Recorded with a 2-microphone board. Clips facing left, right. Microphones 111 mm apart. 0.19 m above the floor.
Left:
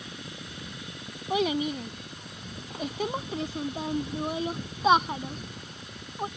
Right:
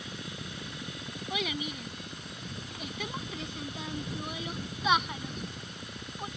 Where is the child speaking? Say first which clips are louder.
Left 9 dB; 40° left (ahead or behind).